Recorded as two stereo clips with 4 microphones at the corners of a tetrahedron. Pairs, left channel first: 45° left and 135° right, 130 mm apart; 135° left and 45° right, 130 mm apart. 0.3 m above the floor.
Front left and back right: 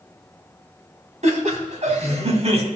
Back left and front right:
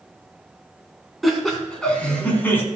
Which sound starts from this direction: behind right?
Laughter, at 1.2 s.